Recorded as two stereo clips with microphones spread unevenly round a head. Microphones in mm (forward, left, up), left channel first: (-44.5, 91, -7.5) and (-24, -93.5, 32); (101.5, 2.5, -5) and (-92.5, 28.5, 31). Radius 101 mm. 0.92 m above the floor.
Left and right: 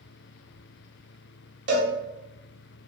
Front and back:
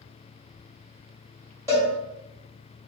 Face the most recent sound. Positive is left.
turn(degrees=-110)